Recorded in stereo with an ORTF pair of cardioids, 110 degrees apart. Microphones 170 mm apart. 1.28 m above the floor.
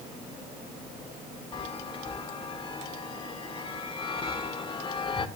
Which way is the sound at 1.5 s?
30° left.